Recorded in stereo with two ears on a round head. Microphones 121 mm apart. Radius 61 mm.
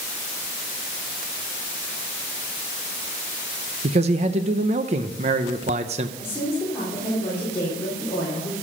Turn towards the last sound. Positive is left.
turn(degrees=20)  # may be behind; listen again after turning